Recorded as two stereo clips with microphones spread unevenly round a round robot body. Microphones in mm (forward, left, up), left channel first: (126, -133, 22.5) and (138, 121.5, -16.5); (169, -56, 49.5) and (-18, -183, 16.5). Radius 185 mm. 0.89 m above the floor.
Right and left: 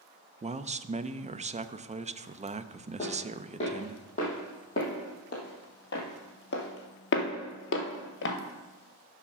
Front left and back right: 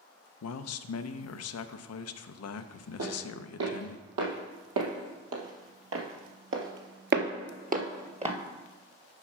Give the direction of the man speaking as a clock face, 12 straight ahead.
11 o'clock.